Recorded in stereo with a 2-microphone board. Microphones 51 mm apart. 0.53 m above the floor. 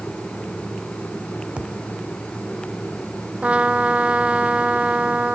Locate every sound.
1.6 s a thud: 25° right (ahead or behind)
3.4 s a trumpet: 25° right (ahead or behind)